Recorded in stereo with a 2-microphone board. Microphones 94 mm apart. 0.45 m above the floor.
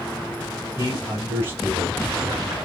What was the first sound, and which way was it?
A man speaking, 30° right (ahead or behind).